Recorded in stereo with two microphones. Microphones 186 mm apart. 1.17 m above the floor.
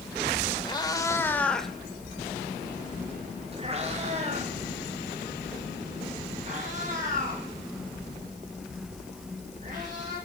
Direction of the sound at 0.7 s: 25° left (ahead or behind).